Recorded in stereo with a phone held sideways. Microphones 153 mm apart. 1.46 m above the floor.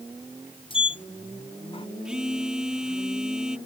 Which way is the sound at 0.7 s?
35° left (ahead or behind).